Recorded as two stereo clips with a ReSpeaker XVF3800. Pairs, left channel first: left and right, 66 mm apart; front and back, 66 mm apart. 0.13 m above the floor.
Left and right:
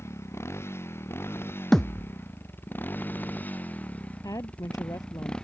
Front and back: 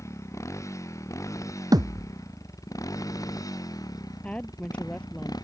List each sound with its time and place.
0.0 s a motorcycle: 40° left; by 5.5 s 10° left
1.7 s a thud: 175° left
4.2 s a woman speaking: 70° left